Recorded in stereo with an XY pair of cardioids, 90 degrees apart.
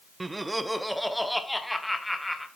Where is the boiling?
I don't hear boiling.